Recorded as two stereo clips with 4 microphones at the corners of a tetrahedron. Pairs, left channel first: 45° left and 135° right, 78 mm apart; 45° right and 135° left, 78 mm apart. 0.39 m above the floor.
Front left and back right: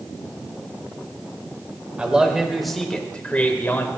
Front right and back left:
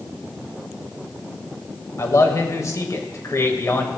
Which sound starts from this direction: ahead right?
A man speaking, at 2.0 s.